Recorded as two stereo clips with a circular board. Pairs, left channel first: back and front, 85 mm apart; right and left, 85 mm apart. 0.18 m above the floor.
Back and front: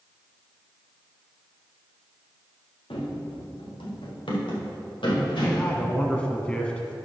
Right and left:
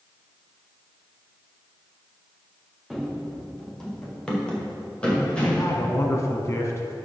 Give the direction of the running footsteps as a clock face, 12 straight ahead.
6 o'clock.